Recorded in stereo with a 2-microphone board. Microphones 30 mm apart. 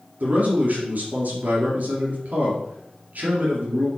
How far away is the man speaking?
About 3 m.